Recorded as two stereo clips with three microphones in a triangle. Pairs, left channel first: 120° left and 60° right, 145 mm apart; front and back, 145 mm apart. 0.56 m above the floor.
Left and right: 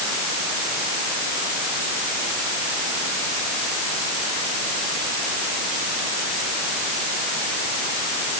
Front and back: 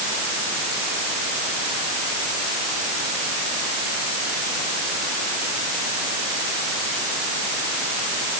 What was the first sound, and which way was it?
Only background noise.